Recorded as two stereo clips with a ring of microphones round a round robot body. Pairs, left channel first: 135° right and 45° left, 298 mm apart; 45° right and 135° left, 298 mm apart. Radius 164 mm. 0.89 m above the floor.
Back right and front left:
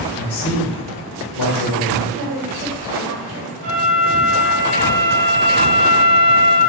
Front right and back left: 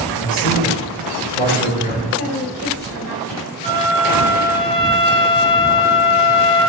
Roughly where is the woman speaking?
Left.